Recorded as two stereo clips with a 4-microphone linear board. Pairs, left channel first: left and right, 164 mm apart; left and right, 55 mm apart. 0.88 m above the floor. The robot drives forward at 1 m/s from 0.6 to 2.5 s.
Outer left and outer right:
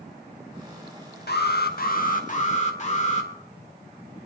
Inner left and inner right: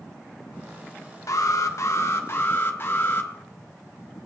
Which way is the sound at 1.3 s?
85° left.